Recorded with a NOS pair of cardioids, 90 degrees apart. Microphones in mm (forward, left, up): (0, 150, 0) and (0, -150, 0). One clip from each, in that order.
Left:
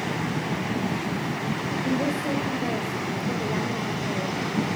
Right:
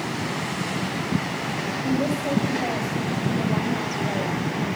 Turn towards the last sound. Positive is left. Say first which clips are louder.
# right 1 dB
turn(degrees=0)